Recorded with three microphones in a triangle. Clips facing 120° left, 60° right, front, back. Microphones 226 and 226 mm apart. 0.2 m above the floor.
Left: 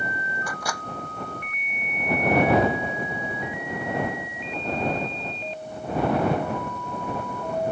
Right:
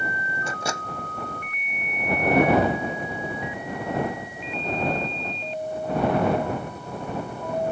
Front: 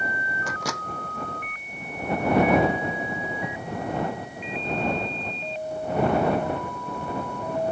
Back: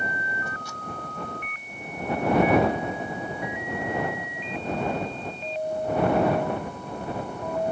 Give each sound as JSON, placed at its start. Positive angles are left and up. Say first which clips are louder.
{"t": 0.5, "sound": "a microwave", "louder": "right 4 dB, front 6 dB", "azimuth_deg": 5}